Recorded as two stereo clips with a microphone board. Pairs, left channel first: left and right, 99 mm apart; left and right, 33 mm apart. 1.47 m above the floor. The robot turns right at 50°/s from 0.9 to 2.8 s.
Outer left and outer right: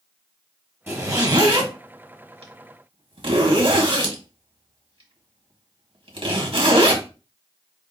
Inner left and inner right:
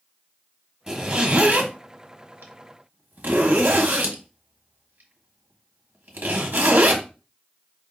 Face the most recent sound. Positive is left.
turn(degrees=-60)  # may be behind; listen again after turning